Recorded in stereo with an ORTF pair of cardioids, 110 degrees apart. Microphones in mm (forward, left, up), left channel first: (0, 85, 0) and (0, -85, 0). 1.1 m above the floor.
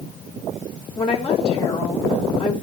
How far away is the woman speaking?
About 2.5 m.